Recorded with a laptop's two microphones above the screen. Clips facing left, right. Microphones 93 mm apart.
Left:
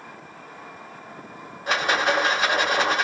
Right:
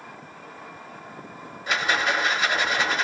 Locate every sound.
1.7 s a rattle: 50° left (ahead or behind), 1.2 m